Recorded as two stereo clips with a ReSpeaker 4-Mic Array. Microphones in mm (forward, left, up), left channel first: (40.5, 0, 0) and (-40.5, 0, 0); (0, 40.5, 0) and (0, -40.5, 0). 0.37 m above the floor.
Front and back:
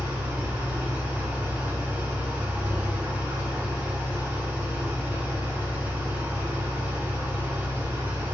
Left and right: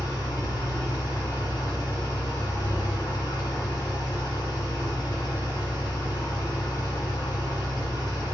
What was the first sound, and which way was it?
An engine running, 115° left.